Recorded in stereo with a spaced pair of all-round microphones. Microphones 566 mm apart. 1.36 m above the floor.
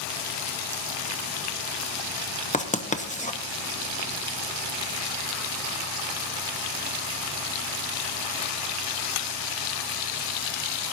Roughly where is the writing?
Centre.